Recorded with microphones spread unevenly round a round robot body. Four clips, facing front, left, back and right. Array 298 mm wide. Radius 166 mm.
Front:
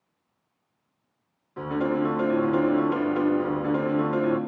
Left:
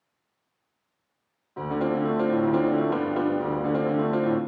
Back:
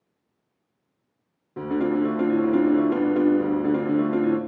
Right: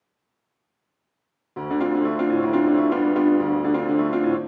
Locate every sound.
1.6 s a piano: 140° right, 2.5 m